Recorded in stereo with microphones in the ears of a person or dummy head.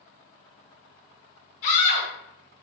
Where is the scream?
50° left (ahead or behind), 0.9 m.